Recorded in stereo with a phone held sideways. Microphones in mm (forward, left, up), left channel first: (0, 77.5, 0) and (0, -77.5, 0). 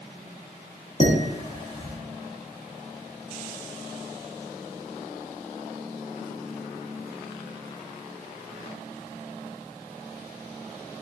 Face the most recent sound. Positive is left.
turn(degrees=55)  # may be behind; listen again after turning